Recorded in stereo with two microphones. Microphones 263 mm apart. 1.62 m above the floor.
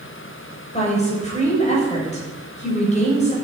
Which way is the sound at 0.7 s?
25° left (ahead or behind).